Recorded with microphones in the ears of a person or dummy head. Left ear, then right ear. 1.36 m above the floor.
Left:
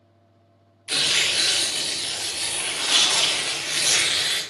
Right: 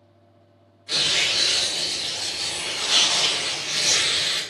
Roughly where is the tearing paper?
Left.